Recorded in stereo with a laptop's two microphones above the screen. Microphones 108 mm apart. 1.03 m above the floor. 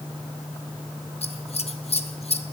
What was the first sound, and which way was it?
Scissors, 70° left (ahead or behind).